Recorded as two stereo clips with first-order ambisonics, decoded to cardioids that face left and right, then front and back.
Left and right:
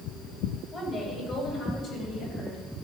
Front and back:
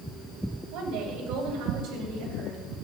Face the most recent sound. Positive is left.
turn(degrees=145)